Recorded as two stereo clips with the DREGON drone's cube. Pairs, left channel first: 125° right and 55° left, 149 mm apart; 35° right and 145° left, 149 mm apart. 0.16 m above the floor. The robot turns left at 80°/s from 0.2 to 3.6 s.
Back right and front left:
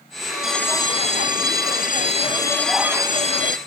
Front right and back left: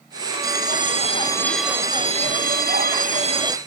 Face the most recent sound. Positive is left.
turn(degrees=75)